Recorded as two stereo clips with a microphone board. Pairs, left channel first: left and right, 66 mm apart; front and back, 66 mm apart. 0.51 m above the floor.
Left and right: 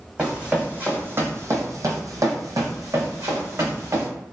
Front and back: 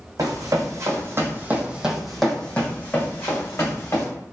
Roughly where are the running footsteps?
Behind.